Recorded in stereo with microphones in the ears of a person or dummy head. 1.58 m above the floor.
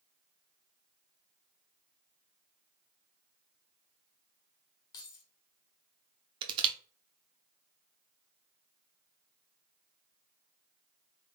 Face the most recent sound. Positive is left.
turn(degrees=-30)  # may be behind; listen again after turning